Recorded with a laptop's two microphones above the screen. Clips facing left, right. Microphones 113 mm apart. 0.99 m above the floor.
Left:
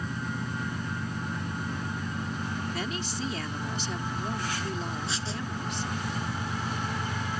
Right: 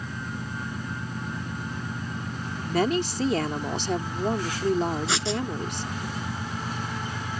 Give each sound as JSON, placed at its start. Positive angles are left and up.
{"t": 2.6, "sound": "a woman speaking", "side_deg": -60}
{"t": 5.1, "sound": "writing", "side_deg": -70}